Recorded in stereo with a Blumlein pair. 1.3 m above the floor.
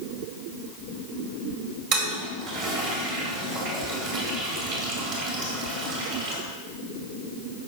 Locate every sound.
1.9 s a toilet flushing: 40° right, 2.5 m